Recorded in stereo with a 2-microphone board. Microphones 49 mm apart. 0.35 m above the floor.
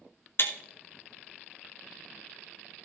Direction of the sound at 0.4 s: 50° left (ahead or behind).